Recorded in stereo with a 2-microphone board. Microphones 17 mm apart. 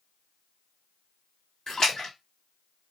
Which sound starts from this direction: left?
A splash, at 1.7 s.